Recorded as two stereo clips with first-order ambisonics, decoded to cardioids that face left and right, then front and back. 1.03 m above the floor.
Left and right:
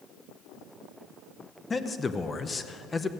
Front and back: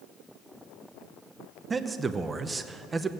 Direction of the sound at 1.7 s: 135° left.